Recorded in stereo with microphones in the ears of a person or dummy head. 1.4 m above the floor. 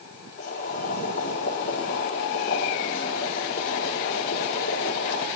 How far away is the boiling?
About 6 m.